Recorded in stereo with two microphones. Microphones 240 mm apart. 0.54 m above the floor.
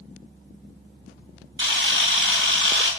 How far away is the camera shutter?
About 3 m.